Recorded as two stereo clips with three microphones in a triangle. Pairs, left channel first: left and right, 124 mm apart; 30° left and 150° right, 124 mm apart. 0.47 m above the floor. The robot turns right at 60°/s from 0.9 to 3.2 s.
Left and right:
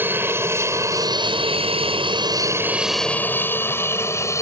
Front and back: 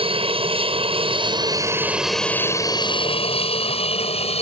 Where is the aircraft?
155° right; by 4.4 s 30° left.